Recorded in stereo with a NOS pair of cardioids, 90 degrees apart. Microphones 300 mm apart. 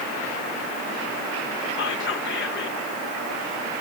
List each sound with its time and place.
1.8 s whispering: 40° left, 0.8 m